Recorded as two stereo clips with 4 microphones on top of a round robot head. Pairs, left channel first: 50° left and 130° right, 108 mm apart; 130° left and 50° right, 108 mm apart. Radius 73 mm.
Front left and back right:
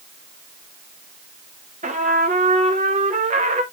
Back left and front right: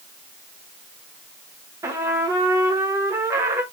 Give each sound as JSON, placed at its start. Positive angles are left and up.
{"t": 1.8, "sound": "a trumpet", "azimuth_deg": -110, "distance_m": 0.9}